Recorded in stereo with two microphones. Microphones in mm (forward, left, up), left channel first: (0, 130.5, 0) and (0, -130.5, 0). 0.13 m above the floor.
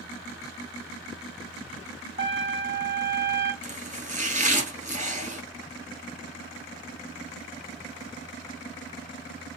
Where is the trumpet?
45° right (ahead or behind), 1.5 m.